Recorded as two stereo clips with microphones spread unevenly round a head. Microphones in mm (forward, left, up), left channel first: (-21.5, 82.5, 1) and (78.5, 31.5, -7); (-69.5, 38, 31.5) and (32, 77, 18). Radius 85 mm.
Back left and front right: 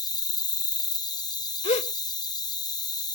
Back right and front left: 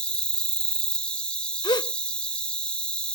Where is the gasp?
165° left.